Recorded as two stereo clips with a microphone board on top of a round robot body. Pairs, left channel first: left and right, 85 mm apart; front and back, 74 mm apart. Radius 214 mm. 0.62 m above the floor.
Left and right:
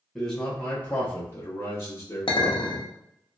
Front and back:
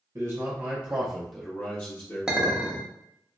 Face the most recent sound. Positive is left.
turn(degrees=100)